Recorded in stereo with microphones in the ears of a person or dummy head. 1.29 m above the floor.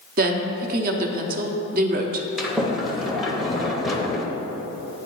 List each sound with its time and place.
0.2 s a woman speaking: 45° right (ahead or behind), 0.7 m
2.4 s a sliding door: 5° left (ahead or behind), 0.7 m